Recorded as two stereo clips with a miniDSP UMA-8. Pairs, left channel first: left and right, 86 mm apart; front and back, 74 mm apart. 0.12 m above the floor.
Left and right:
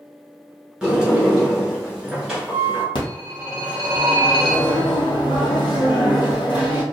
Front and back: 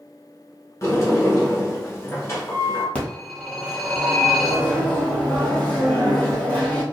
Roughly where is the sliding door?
Ahead.